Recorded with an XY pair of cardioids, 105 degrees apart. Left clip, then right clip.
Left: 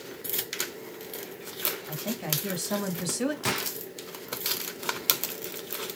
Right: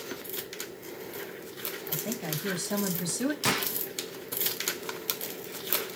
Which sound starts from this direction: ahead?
A gunshot, at 3.5 s.